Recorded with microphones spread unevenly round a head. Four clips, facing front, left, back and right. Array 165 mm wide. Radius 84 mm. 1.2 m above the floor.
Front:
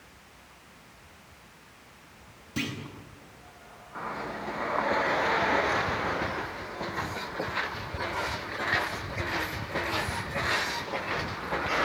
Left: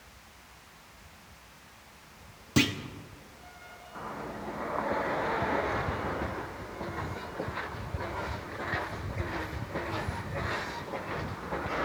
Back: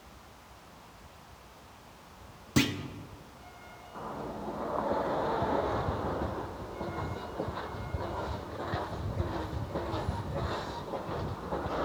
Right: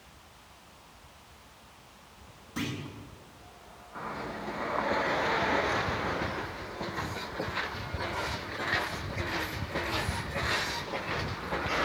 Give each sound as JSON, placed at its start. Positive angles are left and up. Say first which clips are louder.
{"t": 2.6, "sound": "a clunk", "louder": "left 8 dB, back 6 dB", "azimuth_deg": 120, "distance_m": 1.0}